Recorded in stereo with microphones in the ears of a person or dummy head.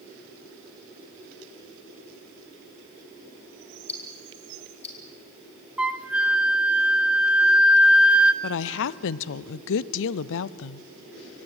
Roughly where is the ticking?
Left.